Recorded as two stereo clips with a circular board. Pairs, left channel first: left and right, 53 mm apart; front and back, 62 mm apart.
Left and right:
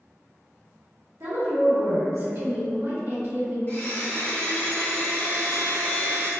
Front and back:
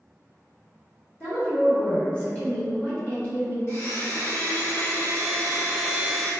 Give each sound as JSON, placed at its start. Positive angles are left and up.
{"t": 1.2, "sound": "a woman speaking", "azimuth_deg": -70, "distance_m": 2.0}
{"t": 3.7, "sound": "a blender", "azimuth_deg": 40, "distance_m": 1.6}